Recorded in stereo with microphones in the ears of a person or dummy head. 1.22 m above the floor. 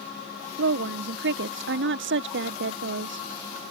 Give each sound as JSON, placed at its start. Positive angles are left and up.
{"t": 0.6, "sound": "a woman speaking", "side_deg": -50}